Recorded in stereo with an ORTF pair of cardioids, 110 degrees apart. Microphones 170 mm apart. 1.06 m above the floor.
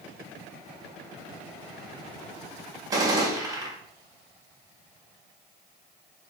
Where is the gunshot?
20° right, 1.7 m.